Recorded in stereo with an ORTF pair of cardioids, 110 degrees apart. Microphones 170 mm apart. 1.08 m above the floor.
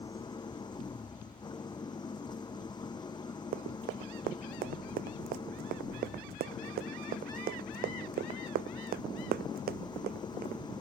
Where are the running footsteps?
70° right.